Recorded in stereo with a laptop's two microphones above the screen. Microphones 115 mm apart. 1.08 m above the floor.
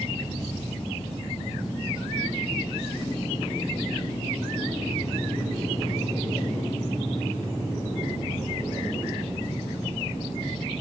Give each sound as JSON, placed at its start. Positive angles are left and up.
{"t": 0.0, "sound": "an engine running", "side_deg": 35, "distance_m": 4.5}